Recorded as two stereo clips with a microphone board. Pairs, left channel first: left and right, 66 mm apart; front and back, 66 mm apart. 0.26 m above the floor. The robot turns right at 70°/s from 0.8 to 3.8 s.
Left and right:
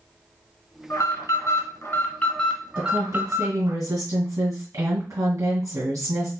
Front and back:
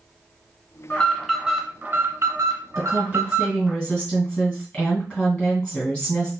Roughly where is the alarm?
Ahead left.